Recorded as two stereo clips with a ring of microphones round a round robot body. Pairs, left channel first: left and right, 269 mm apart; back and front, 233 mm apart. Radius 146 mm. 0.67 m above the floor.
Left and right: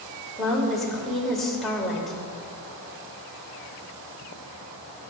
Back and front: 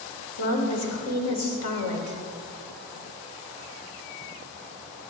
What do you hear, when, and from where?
0.4 s a woman speaking: straight behind, 2.5 m